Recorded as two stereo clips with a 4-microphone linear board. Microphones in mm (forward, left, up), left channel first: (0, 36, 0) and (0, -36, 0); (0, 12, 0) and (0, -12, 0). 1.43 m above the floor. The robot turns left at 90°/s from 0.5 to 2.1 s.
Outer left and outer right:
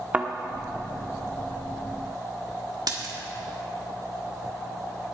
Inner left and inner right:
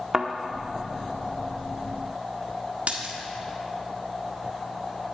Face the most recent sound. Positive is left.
turn(degrees=-65)  # may be behind; listen again after turning